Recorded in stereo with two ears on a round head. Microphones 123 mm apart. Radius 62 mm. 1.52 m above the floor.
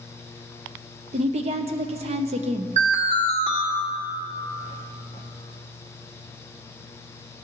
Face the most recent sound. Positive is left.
turn(degrees=-50)  # may be behind; listen again after turning